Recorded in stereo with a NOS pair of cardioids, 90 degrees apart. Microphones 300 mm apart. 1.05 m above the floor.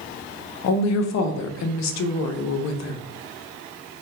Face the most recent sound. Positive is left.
turn(degrees=65)